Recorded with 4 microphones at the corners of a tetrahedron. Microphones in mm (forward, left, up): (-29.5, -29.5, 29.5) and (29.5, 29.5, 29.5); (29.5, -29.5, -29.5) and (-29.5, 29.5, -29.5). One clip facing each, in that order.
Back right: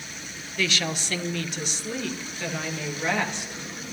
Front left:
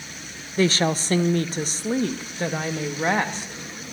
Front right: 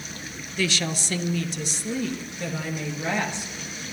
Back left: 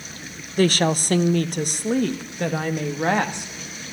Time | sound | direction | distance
0.6 | a woman speaking | 95° left | 0.5 m